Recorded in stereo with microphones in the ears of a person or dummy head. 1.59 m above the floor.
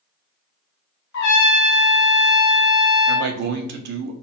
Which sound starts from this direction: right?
A man speaking, at 3.1 s.